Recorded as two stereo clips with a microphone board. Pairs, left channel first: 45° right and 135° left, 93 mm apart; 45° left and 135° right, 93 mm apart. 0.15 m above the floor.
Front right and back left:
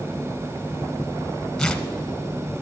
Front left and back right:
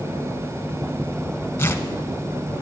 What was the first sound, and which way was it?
Tearing paper, 30° left.